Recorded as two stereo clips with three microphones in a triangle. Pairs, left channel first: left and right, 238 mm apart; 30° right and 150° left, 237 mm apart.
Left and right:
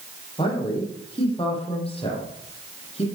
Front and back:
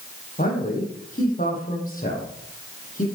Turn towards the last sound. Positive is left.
turn(degrees=25)